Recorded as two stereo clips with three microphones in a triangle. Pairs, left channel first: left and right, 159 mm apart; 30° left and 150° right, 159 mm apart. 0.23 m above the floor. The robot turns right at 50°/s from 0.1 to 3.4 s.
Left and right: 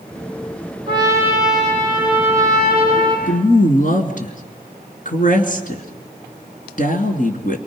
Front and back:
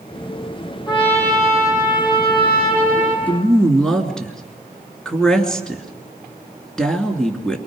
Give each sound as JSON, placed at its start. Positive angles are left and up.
{"t": 0.9, "sound": "a trumpet", "azimuth_deg": -35, "distance_m": 5.5}
{"t": 3.3, "sound": "a woman speaking", "azimuth_deg": 110, "distance_m": 2.5}